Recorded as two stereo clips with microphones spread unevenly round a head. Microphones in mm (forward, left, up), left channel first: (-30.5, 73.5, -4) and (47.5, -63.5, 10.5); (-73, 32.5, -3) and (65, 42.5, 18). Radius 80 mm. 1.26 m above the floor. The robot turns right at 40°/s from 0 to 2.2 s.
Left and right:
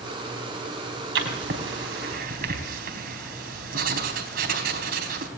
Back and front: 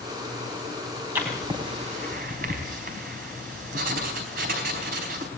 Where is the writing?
75° right, 4 m; by 5.3 s 30° right, 4 m.